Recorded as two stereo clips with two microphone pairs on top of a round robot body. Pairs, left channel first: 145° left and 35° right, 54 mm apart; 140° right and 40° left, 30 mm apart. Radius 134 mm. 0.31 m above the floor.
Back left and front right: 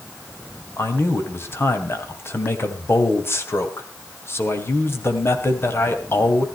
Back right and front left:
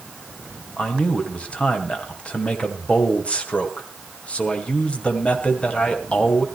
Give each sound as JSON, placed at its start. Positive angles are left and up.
{"t": 0.8, "sound": "a man speaking", "azimuth_deg": 170, "distance_m": 2.5}